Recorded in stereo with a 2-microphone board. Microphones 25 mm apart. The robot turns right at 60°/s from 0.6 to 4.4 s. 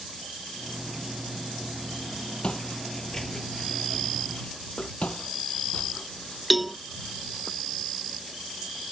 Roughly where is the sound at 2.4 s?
Left.